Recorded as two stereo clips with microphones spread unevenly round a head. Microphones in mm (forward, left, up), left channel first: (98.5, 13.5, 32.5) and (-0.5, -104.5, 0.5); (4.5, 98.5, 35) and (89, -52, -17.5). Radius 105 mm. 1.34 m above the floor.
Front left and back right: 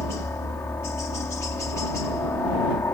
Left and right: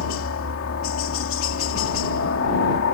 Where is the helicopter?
130° left.